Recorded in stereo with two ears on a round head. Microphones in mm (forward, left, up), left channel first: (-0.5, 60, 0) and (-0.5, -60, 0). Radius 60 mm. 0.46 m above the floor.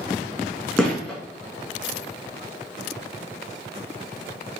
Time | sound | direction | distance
0.8 | a gunshot | 5° left (ahead or behind) | 3 m